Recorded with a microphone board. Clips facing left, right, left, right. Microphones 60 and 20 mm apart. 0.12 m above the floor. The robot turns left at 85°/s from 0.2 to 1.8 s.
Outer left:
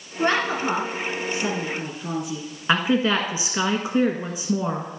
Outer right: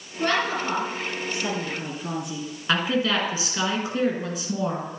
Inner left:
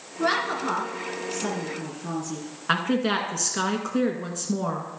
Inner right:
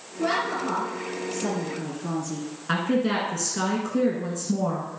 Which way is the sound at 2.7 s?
20° left (ahead or behind).